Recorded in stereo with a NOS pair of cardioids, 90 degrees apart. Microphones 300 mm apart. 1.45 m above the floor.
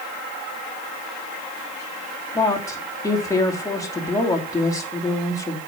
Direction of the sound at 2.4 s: 10° left.